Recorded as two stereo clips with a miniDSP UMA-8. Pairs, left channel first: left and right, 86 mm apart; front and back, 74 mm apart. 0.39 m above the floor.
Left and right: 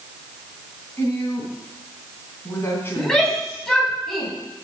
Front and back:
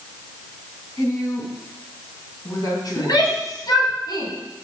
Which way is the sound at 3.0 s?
5° left.